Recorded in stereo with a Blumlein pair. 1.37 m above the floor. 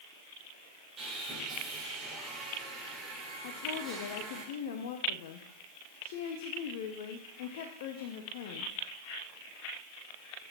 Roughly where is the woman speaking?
Ahead left.